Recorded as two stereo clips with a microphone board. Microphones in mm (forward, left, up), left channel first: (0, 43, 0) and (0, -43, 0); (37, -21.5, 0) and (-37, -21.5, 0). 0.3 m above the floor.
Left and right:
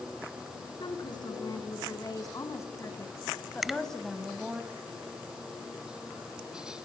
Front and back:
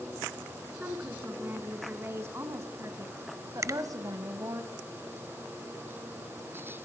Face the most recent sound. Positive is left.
turn(degrees=-175)